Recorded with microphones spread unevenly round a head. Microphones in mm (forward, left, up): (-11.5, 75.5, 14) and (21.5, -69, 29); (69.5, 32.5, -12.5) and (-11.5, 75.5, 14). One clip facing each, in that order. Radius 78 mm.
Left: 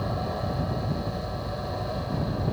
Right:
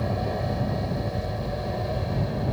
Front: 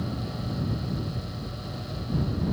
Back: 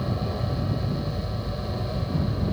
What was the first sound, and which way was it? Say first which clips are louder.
An aircraft: right 2 dB, back 4 dB; 150° right.